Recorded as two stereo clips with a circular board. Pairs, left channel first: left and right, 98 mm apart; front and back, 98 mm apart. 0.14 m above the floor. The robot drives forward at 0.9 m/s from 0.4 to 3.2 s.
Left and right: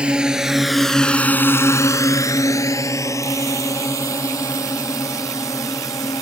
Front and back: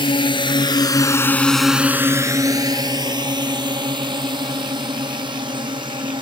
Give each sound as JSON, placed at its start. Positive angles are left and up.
{"t": 0.0, "sound": "a drone", "azimuth_deg": -15}